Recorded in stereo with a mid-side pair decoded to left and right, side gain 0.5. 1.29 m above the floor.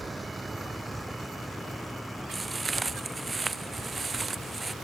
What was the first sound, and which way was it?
A vehicle, 10° right.